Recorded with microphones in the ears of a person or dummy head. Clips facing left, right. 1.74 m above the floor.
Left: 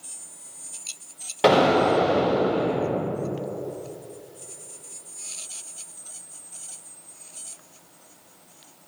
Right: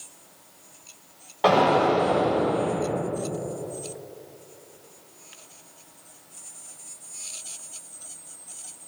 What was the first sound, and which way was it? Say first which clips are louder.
An explosion: left 2 dB; 30° left (ahead or behind).